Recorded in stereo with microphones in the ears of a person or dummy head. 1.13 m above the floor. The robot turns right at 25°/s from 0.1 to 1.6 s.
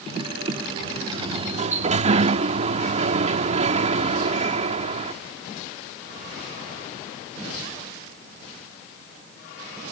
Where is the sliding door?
30° right (ahead or behind); by 5.1 s 40° right (ahead or behind).